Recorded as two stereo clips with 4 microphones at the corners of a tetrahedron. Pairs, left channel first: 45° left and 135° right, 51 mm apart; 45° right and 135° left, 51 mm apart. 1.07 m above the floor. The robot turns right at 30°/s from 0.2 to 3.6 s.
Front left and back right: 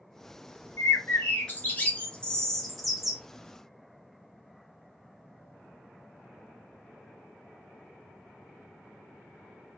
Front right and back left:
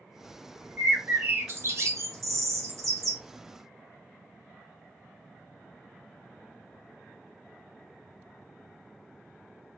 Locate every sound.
0.8 s a bird: 75° left, 0.7 m; by 3.2 s 145° left, 0.7 m